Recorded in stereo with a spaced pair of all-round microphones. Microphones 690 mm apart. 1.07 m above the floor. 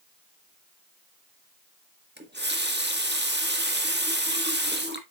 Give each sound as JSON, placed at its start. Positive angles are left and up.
{"t": 2.2, "sound": "a running tap", "side_deg": -15, "distance_m": 1.2}